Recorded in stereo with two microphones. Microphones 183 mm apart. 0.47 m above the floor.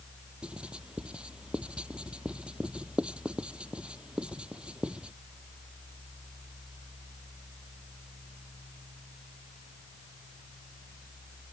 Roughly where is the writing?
Centre.